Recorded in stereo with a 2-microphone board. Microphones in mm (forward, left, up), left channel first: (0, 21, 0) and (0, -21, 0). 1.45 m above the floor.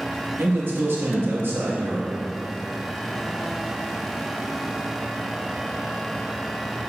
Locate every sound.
0.4 s a man speaking: 70° right (ahead or behind), 2 m